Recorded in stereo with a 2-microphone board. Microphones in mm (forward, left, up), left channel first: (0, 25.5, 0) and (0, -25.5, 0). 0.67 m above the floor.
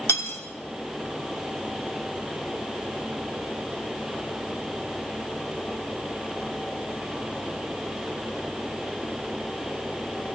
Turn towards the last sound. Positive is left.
turn(degrees=55)  # may be behind; listen again after turning